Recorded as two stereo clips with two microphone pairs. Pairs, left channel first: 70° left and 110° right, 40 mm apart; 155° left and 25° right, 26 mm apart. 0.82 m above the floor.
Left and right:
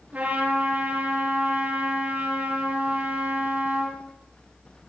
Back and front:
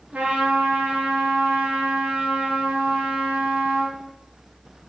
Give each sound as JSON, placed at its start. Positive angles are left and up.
{"t": 0.1, "sound": "a trumpet", "azimuth_deg": -65, "distance_m": 8.0}